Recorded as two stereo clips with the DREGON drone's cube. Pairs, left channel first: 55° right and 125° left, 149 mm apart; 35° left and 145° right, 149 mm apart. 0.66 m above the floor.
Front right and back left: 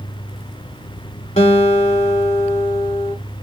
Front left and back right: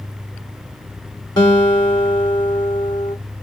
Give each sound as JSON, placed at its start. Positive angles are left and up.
{"t": 1.4, "sound": "a guitar", "azimuth_deg": -20, "distance_m": 1.6}